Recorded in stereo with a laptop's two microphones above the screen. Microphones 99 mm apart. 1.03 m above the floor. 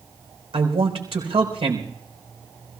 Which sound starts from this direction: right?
A man speaking, at 0.5 s.